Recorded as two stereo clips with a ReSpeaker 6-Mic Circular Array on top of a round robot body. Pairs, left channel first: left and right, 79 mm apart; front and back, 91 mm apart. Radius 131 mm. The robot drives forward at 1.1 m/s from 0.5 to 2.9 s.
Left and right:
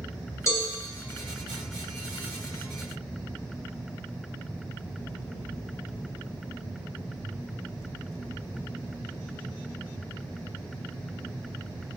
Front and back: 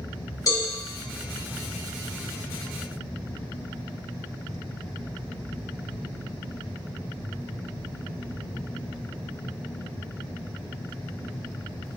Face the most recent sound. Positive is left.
turn(degrees=105)